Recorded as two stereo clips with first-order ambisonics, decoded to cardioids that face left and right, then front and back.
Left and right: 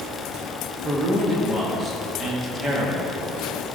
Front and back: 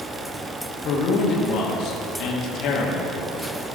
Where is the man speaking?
25° right, 1.3 m.